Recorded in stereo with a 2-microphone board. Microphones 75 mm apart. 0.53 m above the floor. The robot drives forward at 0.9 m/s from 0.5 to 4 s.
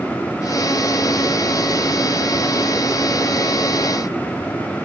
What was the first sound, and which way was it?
Only background noise.